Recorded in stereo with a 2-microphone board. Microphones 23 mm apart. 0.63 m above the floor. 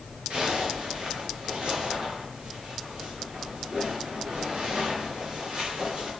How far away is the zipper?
About 8 m.